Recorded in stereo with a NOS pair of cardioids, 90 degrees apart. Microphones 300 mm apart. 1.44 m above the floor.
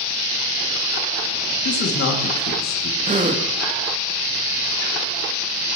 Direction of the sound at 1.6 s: 50° left.